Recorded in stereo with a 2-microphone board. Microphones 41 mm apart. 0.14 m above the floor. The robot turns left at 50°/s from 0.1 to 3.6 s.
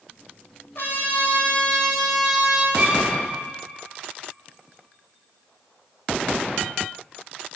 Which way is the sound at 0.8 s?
70° left.